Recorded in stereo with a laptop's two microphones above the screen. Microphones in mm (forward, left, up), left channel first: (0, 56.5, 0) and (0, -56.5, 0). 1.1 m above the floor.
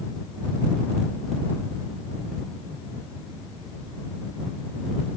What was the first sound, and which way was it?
Only background noise.